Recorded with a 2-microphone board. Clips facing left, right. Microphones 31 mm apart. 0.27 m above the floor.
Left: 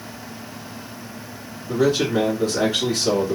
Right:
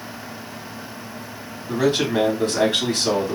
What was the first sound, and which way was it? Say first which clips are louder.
A man speaking: left 1 dB; 50° right (ahead or behind).